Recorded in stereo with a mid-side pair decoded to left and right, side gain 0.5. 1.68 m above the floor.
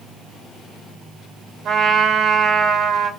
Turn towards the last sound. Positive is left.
turn(degrees=-60)